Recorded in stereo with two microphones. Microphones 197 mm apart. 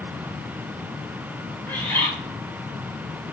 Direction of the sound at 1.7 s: 10° left (ahead or behind).